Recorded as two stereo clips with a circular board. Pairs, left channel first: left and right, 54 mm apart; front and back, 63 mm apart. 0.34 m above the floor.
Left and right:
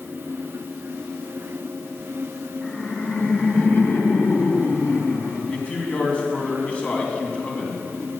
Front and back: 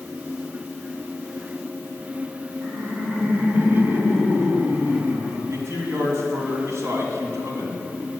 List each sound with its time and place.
2.6 s laughter: 135° left, 1.4 m
5.5 s a man speaking: 155° left, 2.5 m